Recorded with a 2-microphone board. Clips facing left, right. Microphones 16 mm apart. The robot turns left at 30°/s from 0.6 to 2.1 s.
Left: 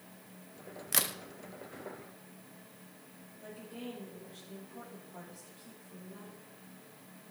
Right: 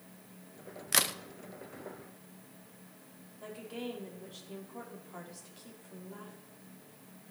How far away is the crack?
About 0.5 m.